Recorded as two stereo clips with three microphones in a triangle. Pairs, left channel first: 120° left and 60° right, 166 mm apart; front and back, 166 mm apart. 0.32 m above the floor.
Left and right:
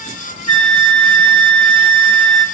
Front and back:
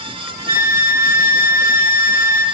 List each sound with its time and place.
0.5 s a flute: straight ahead, 3.5 m